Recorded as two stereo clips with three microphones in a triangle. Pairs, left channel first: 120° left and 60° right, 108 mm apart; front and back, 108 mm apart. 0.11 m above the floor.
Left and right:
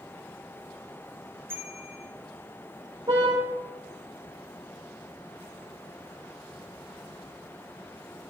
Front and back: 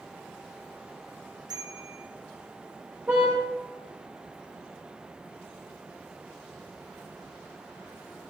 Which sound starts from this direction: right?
A car horn, at 3.1 s.